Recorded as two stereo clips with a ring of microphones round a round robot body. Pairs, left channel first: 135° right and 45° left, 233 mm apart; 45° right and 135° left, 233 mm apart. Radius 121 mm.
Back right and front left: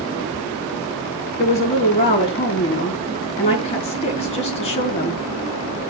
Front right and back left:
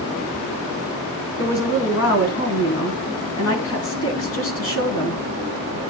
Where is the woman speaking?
70° right, 3.5 m.